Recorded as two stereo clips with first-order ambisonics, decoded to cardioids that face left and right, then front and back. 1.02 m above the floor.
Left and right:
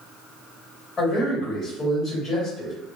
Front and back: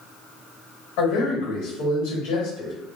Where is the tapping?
No tapping in this recording.